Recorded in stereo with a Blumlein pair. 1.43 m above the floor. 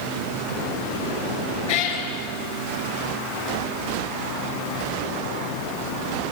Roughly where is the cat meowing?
Ahead left.